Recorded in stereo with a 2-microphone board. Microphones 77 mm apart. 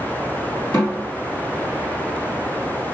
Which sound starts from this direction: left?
A snare drum, at 0.7 s.